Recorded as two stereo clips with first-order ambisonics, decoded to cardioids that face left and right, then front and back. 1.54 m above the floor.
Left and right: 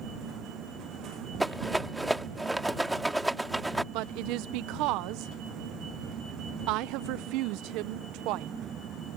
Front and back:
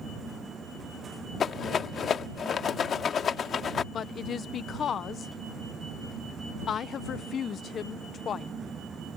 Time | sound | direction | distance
1.4 | a rattle | 10° right | ?
3.9 | a woman speaking | 60° right | ?